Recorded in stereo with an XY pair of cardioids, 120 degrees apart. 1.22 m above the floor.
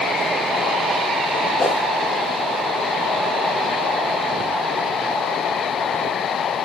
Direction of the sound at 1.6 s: 25° left.